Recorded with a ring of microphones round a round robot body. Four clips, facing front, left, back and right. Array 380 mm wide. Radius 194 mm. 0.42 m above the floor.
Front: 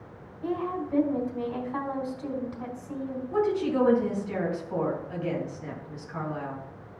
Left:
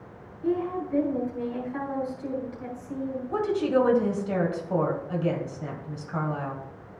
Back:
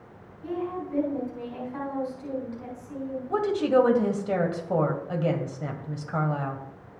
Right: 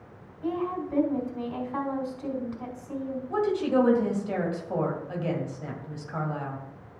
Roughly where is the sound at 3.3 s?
Behind.